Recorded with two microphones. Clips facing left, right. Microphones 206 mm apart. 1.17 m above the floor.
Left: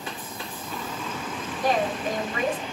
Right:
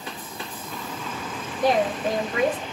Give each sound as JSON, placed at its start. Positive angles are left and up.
{"t": 1.6, "sound": "a woman speaking", "side_deg": -75, "distance_m": 1.8}